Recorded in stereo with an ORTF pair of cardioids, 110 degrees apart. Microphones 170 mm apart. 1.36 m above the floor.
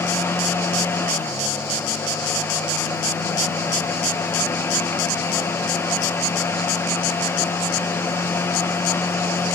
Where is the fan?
15° left, 0.8 m.